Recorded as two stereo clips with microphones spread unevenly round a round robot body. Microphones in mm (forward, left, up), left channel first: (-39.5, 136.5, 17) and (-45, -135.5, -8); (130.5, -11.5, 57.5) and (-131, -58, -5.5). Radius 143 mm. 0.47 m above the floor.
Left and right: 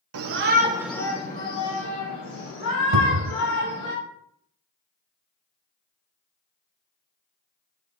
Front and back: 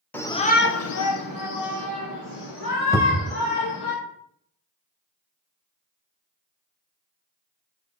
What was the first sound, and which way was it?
A shout, 80° right.